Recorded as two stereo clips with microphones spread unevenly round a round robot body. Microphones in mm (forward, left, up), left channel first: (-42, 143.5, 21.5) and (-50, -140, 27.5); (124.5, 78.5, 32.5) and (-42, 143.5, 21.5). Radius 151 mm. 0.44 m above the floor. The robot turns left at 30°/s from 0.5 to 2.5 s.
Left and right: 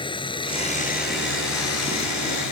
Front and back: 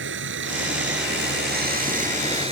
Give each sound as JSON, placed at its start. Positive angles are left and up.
{"t": 0.0, "sound": "running water", "azimuth_deg": 160}